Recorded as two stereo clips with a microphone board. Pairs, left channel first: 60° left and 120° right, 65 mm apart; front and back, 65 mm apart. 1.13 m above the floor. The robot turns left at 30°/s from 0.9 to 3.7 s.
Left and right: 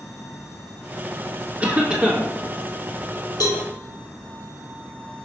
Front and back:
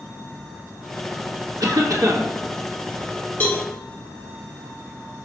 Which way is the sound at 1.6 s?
175° left.